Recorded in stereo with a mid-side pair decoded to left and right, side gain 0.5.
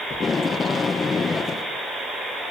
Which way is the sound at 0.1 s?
35° left.